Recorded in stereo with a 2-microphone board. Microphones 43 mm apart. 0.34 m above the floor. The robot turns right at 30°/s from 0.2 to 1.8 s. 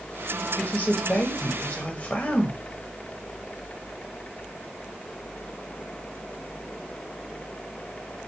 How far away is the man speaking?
About 1.3 m.